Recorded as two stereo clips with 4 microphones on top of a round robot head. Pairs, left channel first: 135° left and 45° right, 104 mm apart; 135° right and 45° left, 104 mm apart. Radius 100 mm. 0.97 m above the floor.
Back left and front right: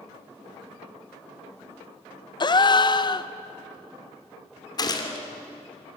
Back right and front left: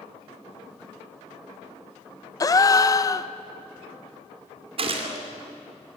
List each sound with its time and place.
2.4 s a gasp: 175° left, 0.8 m
4.8 s a gunshot: 80° left, 2.5 m